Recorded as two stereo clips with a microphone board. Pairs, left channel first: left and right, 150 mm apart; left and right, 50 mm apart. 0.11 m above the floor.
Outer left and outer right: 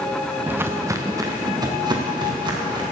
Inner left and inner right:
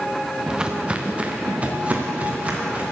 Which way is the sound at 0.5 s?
10° right (ahead or behind).